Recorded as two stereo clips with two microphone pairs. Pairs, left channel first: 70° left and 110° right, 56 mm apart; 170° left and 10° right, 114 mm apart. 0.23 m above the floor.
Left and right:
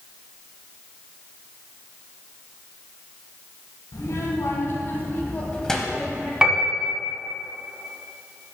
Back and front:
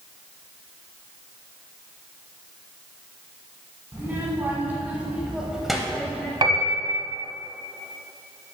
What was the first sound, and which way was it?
A child speaking, 60° left.